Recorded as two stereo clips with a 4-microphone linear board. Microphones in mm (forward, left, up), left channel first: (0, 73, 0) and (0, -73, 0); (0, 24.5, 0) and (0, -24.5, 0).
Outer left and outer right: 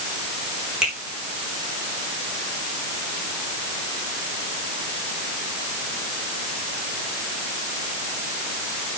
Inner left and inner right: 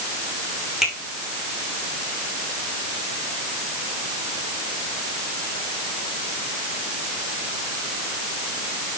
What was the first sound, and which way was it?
A finger snap, 5° right (ahead or behind).